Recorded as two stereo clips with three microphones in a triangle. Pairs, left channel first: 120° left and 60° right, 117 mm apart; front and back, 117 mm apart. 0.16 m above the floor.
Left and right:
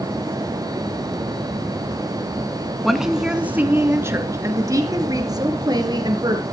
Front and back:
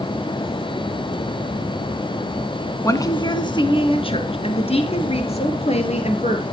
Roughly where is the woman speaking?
Ahead left.